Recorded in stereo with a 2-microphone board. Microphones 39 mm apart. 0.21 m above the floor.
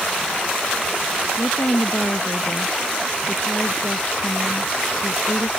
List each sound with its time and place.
1.4 s a woman speaking: 70° left (ahead or behind)